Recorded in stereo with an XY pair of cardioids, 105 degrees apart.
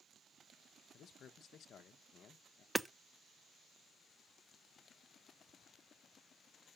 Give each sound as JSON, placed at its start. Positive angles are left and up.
{"t": 0.9, "sound": "a man speaking", "azimuth_deg": 60, "distance_m": 1.0}
{"t": 2.8, "sound": "hammering", "azimuth_deg": -10, "distance_m": 0.6}